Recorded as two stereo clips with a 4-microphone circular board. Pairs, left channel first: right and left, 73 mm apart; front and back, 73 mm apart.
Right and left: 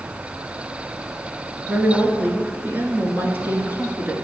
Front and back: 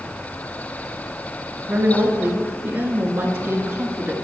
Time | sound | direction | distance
1.7 | a woman speaking | 135° left | 1.2 m